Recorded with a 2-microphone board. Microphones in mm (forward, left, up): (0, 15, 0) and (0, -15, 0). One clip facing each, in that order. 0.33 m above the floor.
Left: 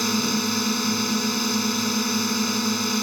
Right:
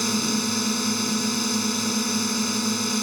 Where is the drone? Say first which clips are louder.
Left 1 dB; 10° left (ahead or behind).